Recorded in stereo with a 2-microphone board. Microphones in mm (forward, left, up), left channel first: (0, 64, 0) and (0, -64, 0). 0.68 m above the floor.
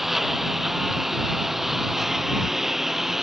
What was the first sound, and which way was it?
A lawn mower, centre (ahead or behind).